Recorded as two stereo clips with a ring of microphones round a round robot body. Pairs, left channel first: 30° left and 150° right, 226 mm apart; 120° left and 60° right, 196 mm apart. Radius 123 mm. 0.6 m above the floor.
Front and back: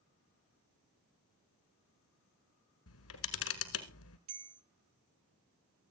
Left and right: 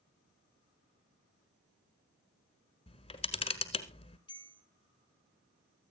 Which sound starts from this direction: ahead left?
A camera shutter, at 2.9 s.